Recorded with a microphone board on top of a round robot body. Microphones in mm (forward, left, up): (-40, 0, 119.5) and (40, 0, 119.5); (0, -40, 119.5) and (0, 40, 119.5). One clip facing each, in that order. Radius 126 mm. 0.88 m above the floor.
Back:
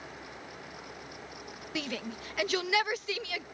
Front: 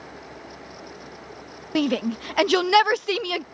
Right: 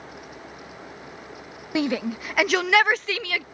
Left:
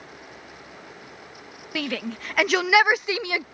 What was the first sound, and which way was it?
A shout, 25° right.